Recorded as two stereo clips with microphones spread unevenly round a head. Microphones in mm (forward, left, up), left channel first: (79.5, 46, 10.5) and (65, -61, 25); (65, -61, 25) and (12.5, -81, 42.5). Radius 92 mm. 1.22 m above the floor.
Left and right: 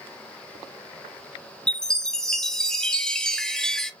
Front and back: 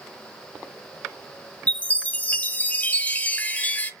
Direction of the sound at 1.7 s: 10° left.